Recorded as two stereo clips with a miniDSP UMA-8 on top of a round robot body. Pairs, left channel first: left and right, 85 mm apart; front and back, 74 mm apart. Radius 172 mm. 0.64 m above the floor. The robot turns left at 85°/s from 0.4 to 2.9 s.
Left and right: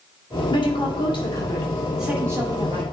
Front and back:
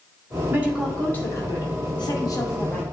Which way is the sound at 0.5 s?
120° left.